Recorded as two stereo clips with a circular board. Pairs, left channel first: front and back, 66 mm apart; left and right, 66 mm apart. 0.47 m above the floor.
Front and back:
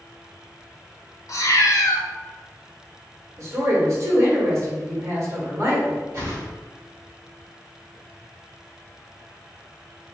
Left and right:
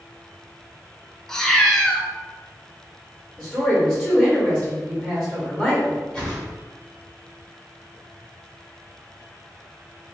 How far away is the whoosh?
About 1.7 m.